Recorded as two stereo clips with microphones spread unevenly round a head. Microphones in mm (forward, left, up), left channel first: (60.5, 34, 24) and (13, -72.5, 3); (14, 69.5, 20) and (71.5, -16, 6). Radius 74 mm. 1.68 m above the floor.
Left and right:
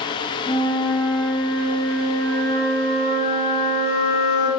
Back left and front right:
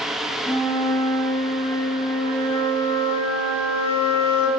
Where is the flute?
70° left, 0.9 m.